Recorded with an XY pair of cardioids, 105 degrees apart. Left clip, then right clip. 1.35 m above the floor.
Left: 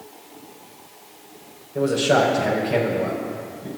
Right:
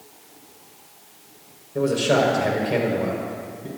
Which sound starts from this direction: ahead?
A man speaking, at 1.8 s.